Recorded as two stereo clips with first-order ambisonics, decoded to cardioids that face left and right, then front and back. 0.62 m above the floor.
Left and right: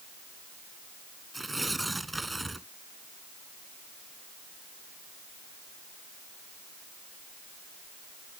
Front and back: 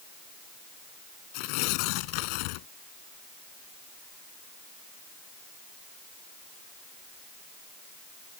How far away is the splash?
I don't hear a splash.